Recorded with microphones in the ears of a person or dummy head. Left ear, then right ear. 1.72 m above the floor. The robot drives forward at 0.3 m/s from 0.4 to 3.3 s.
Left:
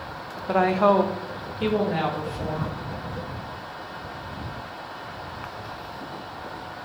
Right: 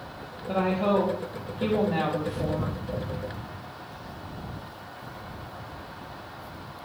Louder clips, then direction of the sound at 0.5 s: Left 6 dB; 50° left (ahead or behind).